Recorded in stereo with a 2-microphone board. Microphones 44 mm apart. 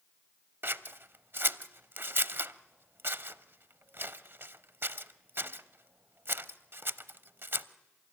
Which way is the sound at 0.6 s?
60° right (ahead or behind).